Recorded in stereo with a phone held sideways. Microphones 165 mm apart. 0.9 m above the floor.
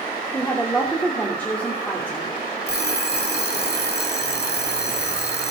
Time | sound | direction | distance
0.3 | a woman speaking | 10° left (ahead or behind) | 3 m
2.7 | an alarm clock | 75° left (ahead or behind) | 2 m